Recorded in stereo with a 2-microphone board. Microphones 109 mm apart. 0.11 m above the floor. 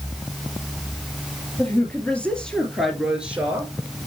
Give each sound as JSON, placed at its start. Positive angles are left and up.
{"t": 1.6, "sound": "a woman speaking", "side_deg": 20, "distance_m": 2.5}